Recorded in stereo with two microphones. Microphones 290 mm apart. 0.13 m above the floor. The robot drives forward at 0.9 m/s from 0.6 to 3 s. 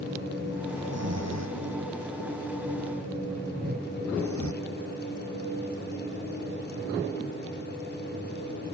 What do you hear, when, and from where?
0.8 s snoring: 60° right (ahead or behind); by 4.5 s 75° right (ahead or behind)
3.5 s a whoosh: 30° right (ahead or behind)